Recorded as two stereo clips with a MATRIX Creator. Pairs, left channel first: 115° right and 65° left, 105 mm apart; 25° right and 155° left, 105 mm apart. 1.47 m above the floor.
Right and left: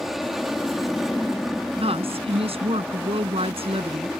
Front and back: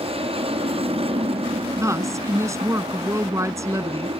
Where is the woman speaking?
95° left.